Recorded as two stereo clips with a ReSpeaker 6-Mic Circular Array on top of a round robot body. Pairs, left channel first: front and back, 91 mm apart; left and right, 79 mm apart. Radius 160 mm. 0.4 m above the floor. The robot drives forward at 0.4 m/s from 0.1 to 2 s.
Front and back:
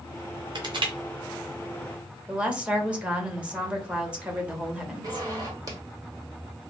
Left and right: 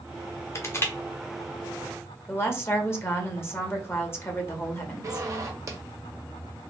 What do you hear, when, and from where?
0.6 s crushing: 145° left, 0.7 m; by 0.9 s 150° left, 0.8 m
2.3 s a woman speaking: 115° left, 1.1 m
5.0 s a zipper: 140° right, 1.2 m